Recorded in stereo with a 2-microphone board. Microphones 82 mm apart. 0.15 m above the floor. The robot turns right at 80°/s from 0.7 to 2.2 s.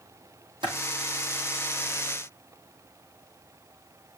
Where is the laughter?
No laughter in this recording.